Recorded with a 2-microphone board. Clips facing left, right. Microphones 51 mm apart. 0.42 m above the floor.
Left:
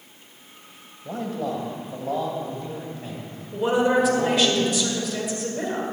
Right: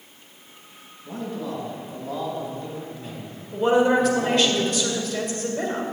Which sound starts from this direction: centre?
A woman speaking, at 3.5 s.